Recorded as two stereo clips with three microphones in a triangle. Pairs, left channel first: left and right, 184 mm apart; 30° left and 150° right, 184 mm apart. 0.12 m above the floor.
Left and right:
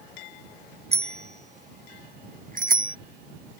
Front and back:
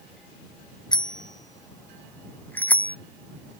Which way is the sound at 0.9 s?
35° right.